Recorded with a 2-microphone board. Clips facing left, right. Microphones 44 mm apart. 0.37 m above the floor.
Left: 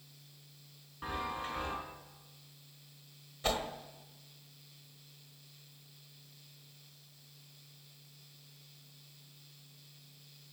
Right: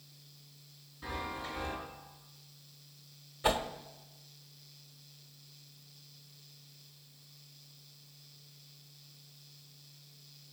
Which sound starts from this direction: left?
A chime, at 1.0 s.